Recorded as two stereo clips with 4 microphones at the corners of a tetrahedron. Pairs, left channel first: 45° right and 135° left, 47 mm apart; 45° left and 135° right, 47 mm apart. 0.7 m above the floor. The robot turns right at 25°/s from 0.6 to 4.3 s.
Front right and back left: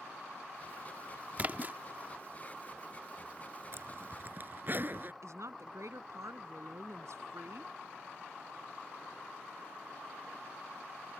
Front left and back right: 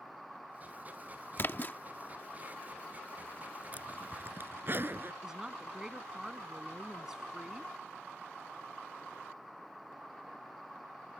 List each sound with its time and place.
1.4 s a splash: 80° left; by 1.8 s 90° left
3.7 s a zipper: 165° left; by 5.1 s straight behind
5.2 s a woman speaking: 145° left